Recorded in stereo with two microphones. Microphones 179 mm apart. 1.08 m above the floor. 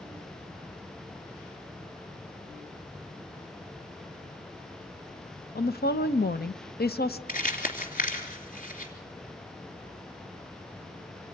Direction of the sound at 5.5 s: 60° left (ahead or behind).